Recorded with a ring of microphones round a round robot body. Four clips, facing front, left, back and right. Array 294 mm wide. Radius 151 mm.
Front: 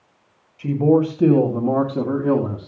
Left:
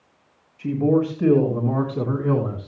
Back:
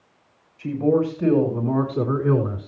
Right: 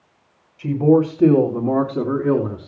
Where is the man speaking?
45° right, 2.5 m; by 2.7 s 25° right, 3.5 m.